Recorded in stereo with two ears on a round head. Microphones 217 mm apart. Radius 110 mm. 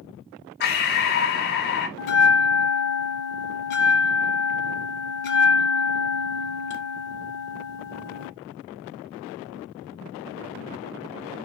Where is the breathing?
45° left (ahead or behind), 0.7 m.